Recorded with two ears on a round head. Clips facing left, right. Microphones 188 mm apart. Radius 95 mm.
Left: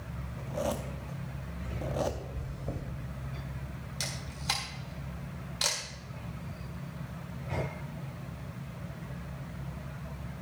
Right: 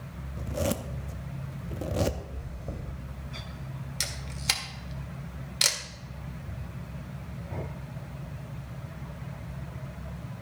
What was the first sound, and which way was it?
A zipper, 30° right (ahead or behind).